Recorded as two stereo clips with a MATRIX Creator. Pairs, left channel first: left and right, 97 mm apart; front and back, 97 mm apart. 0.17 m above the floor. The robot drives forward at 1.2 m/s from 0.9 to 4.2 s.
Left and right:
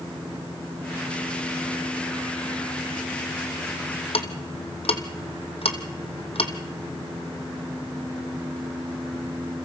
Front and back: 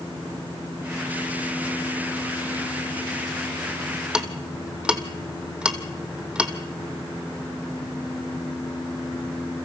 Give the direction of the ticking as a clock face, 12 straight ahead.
9 o'clock.